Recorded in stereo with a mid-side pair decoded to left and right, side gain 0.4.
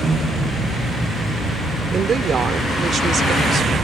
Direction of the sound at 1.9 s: 55° right.